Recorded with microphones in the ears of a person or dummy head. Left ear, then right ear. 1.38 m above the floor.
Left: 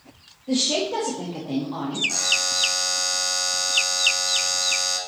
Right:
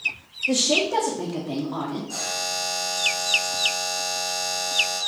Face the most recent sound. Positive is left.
turn(degrees=60)  # may be behind; listen again after turning